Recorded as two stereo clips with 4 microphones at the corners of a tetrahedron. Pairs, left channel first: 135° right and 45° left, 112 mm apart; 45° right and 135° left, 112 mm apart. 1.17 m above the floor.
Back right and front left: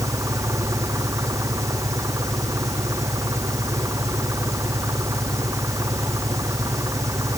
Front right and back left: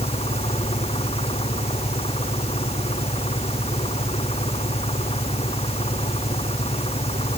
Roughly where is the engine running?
Ahead.